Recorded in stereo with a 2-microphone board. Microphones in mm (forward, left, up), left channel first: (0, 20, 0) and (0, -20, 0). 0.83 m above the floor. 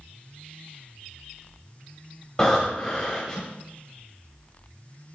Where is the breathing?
20° left (ahead or behind), 0.7 m.